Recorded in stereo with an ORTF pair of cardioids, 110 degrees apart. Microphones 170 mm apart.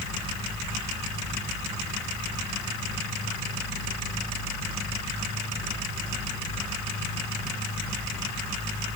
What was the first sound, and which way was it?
Only background noise.